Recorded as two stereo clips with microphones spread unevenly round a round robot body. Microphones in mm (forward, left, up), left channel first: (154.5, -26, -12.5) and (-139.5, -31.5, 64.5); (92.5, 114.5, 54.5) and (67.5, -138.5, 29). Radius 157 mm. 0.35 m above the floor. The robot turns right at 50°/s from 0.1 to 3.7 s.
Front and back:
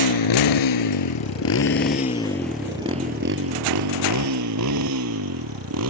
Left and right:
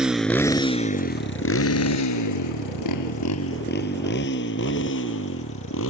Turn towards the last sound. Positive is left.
turn(degrees=135)